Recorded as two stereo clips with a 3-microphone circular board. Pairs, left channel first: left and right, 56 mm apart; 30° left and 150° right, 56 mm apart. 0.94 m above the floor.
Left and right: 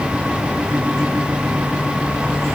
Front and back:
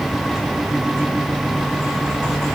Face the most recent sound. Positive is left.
No sound to turn to.